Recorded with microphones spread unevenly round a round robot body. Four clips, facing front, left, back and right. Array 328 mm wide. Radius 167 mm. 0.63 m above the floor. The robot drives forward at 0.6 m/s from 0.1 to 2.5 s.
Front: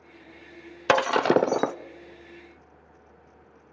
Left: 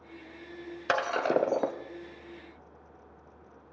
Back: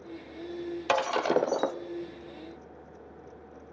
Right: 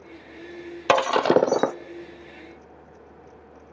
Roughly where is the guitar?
I don't hear a guitar.